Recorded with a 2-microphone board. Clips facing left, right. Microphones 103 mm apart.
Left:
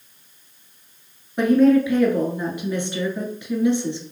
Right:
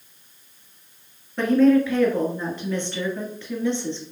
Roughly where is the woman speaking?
Centre.